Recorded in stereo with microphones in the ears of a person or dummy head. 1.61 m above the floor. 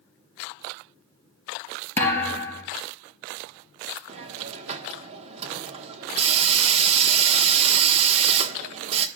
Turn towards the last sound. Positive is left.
turn(degrees=-40)  # may be behind; listen again after turning